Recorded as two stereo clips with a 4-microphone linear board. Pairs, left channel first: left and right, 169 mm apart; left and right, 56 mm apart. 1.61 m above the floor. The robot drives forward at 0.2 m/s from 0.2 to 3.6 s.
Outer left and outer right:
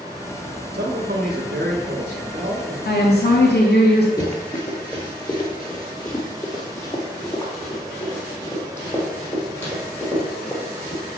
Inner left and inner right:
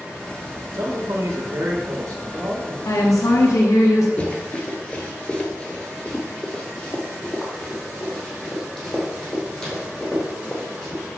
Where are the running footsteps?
25° left (ahead or behind), 1.7 m; by 11.0 s 10° left (ahead or behind), 5 m.